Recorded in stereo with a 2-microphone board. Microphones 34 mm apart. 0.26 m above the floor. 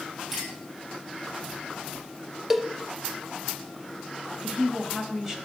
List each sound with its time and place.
0.3 s a clink: 10° right (ahead or behind), 5 m
2.5 s a cowbell: 10° right (ahead or behind), 0.6 m
4.4 s a woman speaking: 15° right (ahead or behind), 1.5 m